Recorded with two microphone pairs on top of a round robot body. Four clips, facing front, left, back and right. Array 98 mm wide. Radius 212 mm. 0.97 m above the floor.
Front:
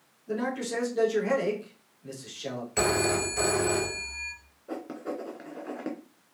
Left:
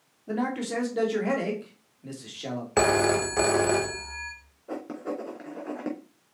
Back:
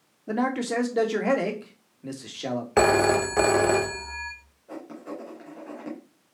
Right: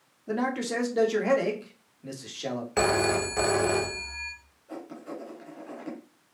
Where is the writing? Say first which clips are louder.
Left 6 dB, front 2 dB; 55° left, 3 m.